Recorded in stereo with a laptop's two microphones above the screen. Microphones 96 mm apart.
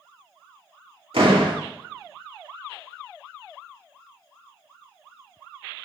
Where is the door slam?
75° right (ahead or behind), 1.9 m.